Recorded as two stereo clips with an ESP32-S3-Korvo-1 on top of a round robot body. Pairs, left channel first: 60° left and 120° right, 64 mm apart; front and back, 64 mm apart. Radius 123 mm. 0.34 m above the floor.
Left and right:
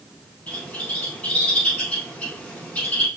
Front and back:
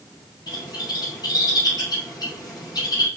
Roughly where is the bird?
Ahead.